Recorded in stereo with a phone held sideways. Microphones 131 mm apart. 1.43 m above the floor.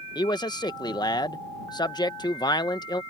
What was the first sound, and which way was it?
A man speaking, 35° left (ahead or behind).